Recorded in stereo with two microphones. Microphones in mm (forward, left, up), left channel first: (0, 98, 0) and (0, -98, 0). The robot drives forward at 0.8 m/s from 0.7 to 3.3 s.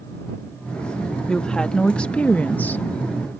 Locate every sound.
1.3 s a woman speaking: 5° left (ahead or behind); by 2.8 s 10° left (ahead or behind)